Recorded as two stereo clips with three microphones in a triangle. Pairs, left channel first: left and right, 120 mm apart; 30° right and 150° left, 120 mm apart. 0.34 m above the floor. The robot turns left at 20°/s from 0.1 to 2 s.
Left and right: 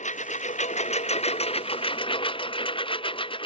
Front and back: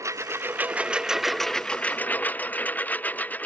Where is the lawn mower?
85° left; by 3.5 s 45° left.